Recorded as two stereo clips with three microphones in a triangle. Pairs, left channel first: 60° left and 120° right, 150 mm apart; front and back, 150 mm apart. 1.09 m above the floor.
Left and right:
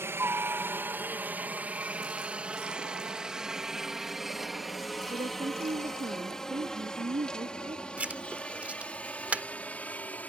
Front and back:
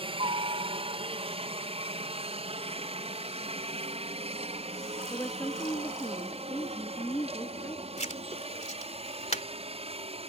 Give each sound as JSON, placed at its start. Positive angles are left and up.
{"t": 0.0, "sound": "a helicopter", "azimuth_deg": 175}
{"t": 5.1, "sound": "a woman speaking", "azimuth_deg": -65}
{"t": 8.0, "sound": "writing", "azimuth_deg": -40}